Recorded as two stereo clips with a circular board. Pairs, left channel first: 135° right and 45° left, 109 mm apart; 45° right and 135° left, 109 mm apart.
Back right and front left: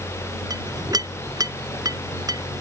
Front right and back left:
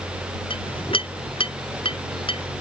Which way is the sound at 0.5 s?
10° right.